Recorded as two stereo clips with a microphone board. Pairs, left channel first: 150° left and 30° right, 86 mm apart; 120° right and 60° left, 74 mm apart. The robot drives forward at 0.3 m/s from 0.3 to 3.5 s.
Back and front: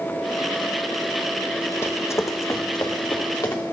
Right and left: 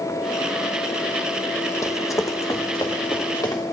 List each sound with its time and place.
1.8 s running footsteps: 155° right, 0.8 m; by 3.6 s 160° right, 2.5 m